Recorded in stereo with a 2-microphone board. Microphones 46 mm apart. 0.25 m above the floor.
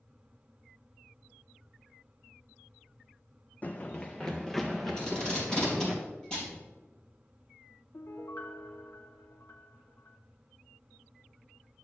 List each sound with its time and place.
3.6 s running footsteps: 35° left (ahead or behind), 0.5 m; by 6.0 s centre (ahead or behind), 2.5 m
5.0 s tape being pulled: 15° left (ahead or behind), 3.5 m
7.9 s a piano: 70° left (ahead or behind), 0.7 m